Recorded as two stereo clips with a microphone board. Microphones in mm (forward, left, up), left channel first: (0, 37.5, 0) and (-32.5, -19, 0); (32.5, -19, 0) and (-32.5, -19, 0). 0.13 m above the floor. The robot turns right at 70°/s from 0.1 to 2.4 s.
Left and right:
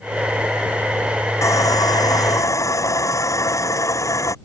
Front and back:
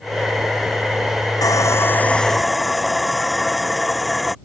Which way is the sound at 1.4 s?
20° left.